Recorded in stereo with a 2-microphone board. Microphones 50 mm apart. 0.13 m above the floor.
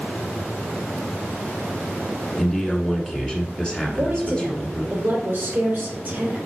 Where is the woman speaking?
40° right (ahead or behind), 3 m.